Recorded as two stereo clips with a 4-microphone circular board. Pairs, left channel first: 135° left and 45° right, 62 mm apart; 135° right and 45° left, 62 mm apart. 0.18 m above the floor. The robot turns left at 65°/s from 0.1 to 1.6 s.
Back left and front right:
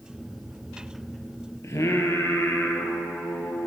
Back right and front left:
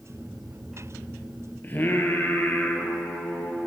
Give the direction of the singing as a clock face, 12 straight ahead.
6 o'clock.